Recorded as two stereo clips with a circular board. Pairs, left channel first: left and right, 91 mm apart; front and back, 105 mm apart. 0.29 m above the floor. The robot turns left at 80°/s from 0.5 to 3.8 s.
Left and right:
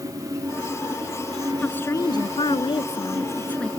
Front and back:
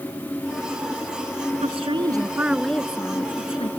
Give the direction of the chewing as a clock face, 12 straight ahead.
I don't hear chewing.